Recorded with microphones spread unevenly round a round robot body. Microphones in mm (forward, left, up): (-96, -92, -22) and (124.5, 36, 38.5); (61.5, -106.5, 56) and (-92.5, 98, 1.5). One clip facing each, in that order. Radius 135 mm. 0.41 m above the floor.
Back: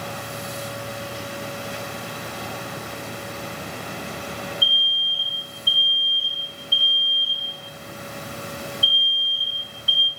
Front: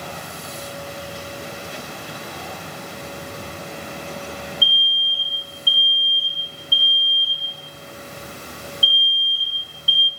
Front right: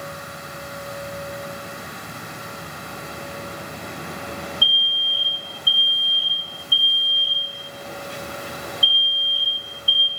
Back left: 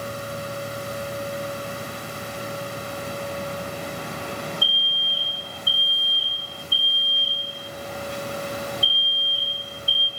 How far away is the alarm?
About 0.6 m.